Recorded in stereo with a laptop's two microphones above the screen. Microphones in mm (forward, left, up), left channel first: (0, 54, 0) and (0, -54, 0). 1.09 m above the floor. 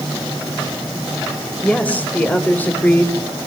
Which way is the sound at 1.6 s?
15° left (ahead or behind).